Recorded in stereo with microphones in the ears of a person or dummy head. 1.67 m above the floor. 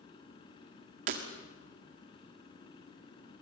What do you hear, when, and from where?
0.0 s a machine running: 30° left (ahead or behind), 3.5 m
1.1 s breaking glass: 50° right (ahead or behind), 1.6 m